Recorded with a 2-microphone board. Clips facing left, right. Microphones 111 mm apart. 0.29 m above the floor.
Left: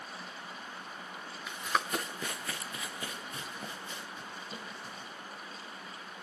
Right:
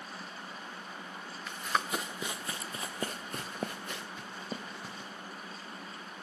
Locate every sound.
1.5 s running footsteps: 5° left (ahead or behind), 1.4 m; by 5.1 s 85° right, 2.0 m